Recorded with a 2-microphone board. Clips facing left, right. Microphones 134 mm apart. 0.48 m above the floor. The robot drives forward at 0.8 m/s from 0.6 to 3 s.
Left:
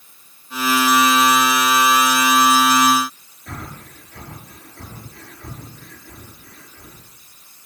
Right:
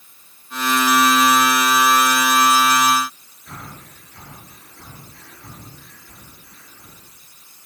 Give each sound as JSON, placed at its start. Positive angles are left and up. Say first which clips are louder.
{"t": 3.5, "sound": "breathing", "louder": "left 3 dB", "side_deg": 65, "distance_m": 7.5}